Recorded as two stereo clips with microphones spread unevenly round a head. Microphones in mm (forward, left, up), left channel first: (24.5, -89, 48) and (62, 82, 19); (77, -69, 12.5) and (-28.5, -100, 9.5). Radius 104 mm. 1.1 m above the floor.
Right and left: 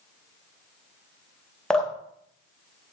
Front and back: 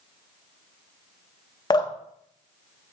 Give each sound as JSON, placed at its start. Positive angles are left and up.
{"t": 1.7, "sound": "dripping", "azimuth_deg": -25, "distance_m": 0.7}